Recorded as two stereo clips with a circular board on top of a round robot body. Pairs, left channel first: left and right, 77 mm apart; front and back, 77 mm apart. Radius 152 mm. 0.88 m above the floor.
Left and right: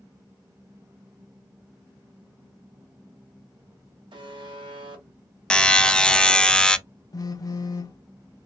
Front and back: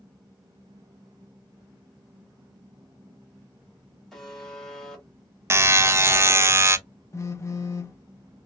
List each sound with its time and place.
4.1 s a buzzer: 85° right, 1.0 m
5.5 s a buzzer: 160° left, 0.6 m
7.1 s a phone buzzing: 50° left, 0.5 m